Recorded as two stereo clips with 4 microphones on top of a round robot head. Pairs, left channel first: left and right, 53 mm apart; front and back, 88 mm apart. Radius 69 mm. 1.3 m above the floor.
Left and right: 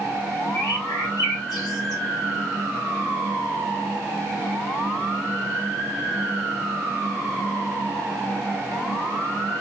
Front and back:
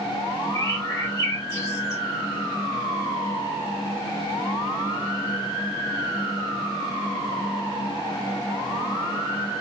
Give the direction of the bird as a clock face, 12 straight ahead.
10 o'clock.